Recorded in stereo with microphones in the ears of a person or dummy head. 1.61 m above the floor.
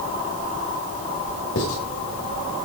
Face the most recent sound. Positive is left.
turn(degrees=75)  # may be behind; listen again after turning